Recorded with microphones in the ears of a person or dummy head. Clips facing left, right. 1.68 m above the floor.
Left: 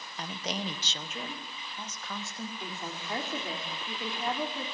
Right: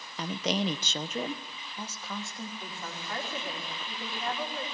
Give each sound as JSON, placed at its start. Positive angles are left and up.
{"t": 0.2, "sound": "a woman speaking", "side_deg": -75, "distance_m": 1.3}
{"t": 2.6, "sound": "a woman speaking", "side_deg": 20, "distance_m": 3.5}